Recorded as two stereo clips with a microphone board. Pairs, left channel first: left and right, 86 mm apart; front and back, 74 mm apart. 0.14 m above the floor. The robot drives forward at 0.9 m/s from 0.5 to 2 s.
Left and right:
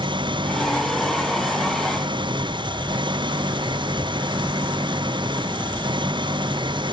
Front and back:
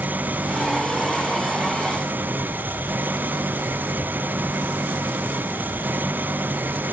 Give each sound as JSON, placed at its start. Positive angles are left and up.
{"t": 0.0, "sound": "an engine running", "azimuth_deg": -110}